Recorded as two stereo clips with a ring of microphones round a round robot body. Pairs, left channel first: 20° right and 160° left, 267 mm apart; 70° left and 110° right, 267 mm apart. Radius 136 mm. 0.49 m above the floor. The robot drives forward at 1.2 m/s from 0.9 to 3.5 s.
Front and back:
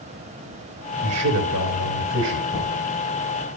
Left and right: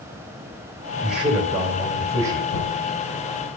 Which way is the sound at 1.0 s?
155° left.